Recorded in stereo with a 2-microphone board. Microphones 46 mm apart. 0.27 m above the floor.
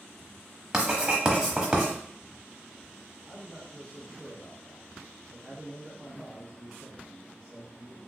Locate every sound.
0.7 s writing: 15° right (ahead or behind), 0.9 m
3.2 s a man speaking: 5° left (ahead or behind), 1.3 m